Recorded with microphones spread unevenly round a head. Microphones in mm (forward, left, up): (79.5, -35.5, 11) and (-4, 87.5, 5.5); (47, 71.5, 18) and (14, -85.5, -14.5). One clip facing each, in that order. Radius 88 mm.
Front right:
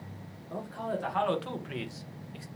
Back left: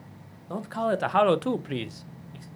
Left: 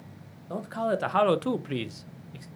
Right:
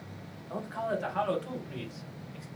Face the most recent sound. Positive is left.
turn(degrees=25)